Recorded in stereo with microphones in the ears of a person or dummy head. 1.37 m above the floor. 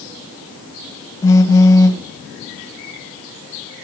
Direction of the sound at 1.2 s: 15° left (ahead or behind).